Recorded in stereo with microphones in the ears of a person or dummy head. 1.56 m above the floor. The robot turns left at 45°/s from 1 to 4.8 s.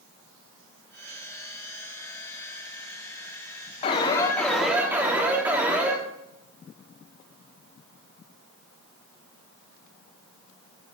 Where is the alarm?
35° left, 1.9 m; by 6.0 s 5° right, 1.9 m.